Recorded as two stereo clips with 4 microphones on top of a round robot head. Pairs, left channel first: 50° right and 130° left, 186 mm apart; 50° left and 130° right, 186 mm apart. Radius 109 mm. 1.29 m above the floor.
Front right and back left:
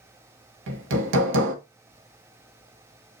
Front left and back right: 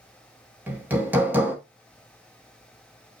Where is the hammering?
150° left, 2 m.